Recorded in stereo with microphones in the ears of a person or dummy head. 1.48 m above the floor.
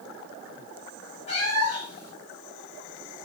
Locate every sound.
1.3 s a cat meowing: 30° left (ahead or behind), 1.0 m